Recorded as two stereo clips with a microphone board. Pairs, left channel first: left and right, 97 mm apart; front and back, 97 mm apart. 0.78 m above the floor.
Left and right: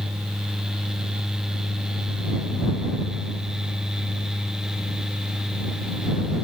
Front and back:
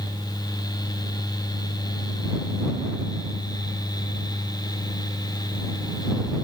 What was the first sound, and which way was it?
Only background noise.